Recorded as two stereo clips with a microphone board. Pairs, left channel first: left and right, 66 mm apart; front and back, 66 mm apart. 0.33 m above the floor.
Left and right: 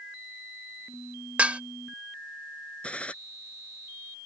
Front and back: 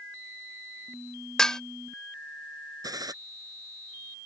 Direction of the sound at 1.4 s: 65° right.